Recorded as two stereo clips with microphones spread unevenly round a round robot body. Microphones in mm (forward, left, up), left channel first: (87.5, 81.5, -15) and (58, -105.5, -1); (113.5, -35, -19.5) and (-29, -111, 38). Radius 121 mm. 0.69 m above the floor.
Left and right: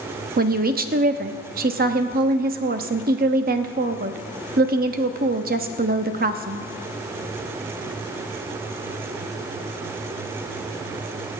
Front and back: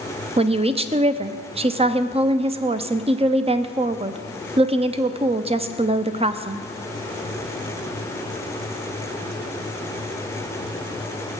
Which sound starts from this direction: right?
A woman speaking, at 0.4 s.